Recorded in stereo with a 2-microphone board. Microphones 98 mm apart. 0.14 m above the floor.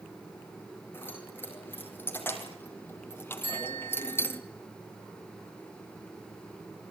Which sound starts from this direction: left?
Keys jangling, at 0.9 s.